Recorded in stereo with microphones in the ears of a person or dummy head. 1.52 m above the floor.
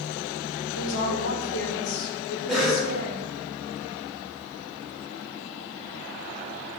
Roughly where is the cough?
Centre.